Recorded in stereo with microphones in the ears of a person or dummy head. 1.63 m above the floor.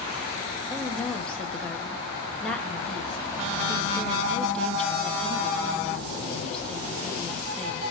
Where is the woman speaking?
Centre (ahead or behind), 1.8 m.